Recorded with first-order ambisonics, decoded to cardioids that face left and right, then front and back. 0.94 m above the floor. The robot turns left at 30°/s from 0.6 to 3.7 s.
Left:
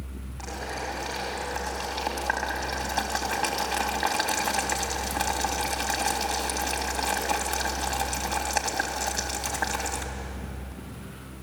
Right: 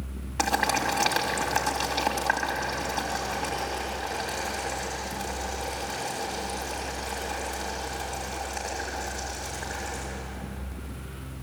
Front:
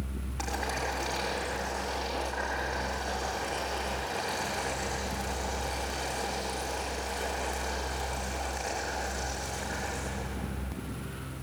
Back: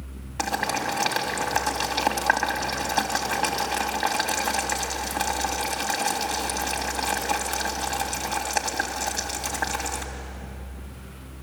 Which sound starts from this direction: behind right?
Boiling, at 0.4 s.